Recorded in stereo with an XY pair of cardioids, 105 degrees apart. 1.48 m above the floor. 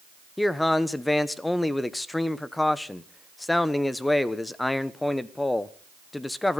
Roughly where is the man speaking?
Ahead.